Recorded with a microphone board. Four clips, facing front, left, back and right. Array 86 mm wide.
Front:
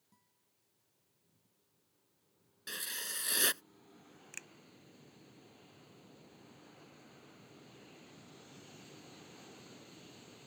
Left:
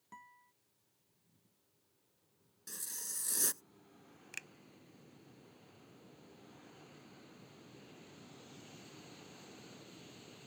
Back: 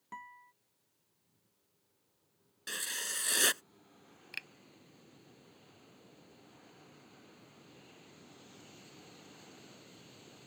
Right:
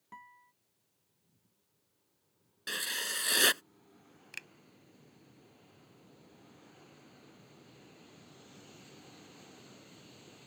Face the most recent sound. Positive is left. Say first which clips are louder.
# right 2 dB, back 7 dB
turn(degrees=-165)